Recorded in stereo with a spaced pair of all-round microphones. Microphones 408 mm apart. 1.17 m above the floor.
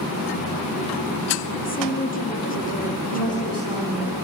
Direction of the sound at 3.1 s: 75° right (ahead or behind).